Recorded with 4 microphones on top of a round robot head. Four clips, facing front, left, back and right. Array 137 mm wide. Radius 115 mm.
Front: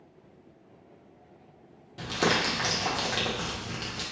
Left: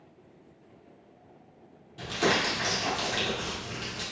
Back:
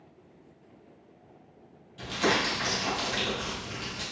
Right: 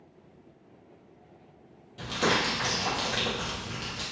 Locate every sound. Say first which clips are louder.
2.0 s crumpling: even, even; straight ahead, 1.7 m